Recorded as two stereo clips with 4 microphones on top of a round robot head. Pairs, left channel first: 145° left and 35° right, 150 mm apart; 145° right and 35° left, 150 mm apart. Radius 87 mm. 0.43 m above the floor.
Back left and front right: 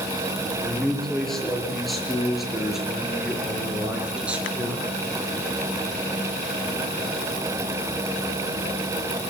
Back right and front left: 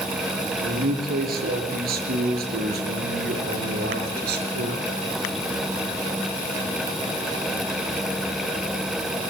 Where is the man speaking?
60° left, 7.5 m; by 4.8 s 50° left, 6 m.